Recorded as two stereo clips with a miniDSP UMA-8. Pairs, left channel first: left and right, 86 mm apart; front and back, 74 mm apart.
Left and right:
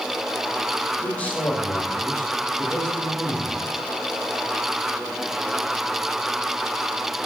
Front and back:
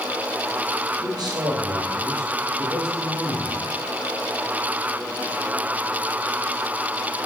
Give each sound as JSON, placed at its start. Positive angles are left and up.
{"t": 1.0, "sound": "a man speaking", "azimuth_deg": 160, "distance_m": 3.5}